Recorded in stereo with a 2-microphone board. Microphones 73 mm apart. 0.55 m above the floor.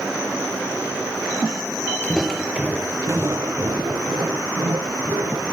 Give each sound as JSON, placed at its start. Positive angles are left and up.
{"t": 2.0, "sound": "footsteps", "side_deg": 20, "distance_m": 0.7}